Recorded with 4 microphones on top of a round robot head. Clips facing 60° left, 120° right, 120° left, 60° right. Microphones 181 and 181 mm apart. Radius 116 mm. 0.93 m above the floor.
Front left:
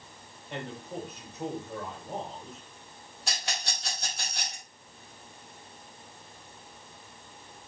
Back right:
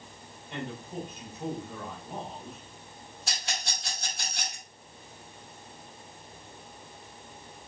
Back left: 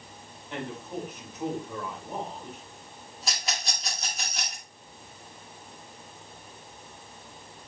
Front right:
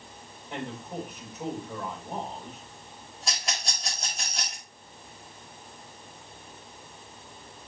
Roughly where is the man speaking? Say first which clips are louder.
Even, back left 1 dB; ahead.